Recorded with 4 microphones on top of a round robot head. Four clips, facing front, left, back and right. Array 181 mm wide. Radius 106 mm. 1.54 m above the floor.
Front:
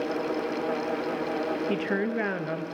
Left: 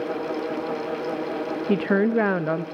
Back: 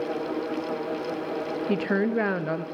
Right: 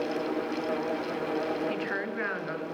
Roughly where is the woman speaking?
Left.